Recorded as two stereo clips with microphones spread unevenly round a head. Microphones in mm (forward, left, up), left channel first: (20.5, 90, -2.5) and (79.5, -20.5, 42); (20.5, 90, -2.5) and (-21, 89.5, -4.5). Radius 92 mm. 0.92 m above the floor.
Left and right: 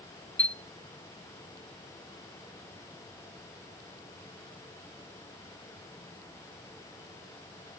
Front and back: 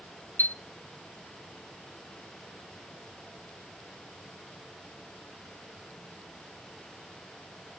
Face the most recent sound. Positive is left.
turn(degrees=35)